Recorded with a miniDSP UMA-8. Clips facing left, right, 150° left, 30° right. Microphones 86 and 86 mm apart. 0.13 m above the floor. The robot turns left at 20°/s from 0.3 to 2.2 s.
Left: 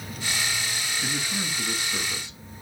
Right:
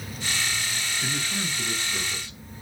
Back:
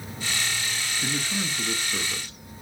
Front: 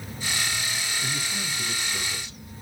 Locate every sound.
1.0 s a man speaking: 175° left, 1.6 m; by 2.4 s 150° left, 1.6 m